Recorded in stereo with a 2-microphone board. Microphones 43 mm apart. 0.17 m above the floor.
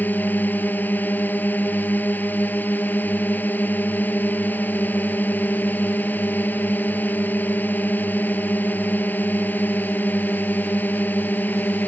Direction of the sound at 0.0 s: 45° left (ahead or behind).